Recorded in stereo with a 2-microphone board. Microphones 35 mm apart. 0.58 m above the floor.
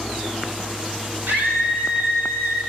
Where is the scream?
75° right (ahead or behind), 5 m.